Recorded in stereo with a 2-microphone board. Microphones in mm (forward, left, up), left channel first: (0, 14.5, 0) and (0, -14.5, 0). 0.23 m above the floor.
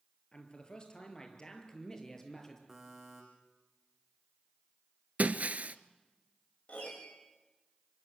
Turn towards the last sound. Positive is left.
turn(degrees=50)  # may be behind; listen again after turning